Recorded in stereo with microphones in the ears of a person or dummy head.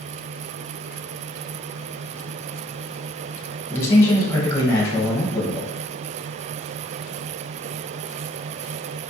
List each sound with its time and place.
3.7 s a man speaking: 15° left (ahead or behind), 1.0 m